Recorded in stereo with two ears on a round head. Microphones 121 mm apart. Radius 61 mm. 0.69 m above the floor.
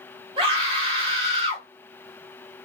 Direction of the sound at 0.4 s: 40° right (ahead or behind).